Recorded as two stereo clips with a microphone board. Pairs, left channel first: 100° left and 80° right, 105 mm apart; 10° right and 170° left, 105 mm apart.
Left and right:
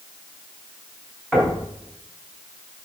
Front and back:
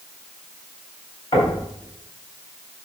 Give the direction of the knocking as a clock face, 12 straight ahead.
12 o'clock.